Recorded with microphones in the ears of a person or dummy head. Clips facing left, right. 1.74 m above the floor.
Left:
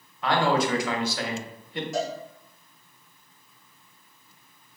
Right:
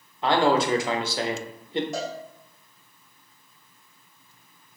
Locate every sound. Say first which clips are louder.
0.2 s a man speaking: right 2 dB; 25° right (ahead or behind), 0.5 m
1.9 s a cowbell: left 3 dB; 35° right (ahead or behind), 1.9 m